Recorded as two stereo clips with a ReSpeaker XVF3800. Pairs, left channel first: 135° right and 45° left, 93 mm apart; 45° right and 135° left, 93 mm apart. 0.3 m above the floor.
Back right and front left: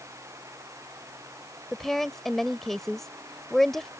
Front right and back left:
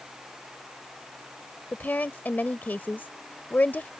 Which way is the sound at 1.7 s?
55° right.